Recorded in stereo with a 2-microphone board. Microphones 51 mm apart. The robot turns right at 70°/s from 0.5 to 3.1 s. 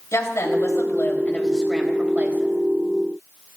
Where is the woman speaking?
95° left, 3.5 m; by 2.6 s 120° right, 3.5 m.